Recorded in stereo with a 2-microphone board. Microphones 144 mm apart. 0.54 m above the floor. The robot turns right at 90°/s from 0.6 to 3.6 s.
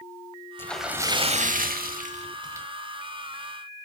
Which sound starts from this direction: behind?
A splash, at 0.6 s.